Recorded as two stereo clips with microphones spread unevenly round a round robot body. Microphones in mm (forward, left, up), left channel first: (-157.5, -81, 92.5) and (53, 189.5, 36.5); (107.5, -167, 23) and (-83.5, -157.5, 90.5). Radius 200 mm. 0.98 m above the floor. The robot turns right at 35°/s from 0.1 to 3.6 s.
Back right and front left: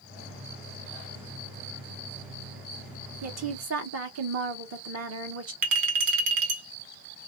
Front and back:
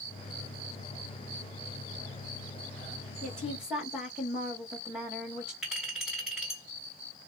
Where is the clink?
95° left, 1.2 m.